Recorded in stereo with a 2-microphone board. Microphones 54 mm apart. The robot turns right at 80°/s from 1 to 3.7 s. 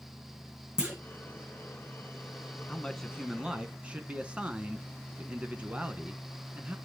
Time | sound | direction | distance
0.8 | a clunk | 15° right (ahead or behind) | 1.9 m
2.7 | a man speaking | 140° left | 1.3 m